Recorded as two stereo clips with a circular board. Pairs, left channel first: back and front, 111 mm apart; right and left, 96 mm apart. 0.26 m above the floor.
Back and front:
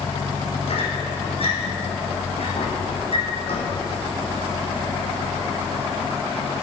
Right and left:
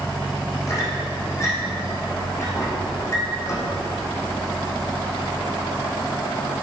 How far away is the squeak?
About 4 m.